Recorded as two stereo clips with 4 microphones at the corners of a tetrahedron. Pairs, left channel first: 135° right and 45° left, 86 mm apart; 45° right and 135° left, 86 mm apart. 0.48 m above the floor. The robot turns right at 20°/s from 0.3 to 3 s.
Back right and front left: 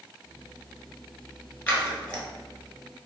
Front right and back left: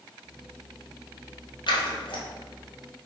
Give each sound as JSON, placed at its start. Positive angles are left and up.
{"t": 1.7, "sound": "scissors", "azimuth_deg": -60, "distance_m": 1.1}